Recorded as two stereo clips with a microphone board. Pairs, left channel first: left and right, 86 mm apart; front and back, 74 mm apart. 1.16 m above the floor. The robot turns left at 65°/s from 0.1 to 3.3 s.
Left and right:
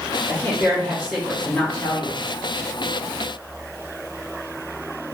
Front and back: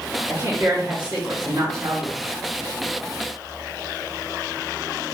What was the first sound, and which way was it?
A woman speaking, 115° right.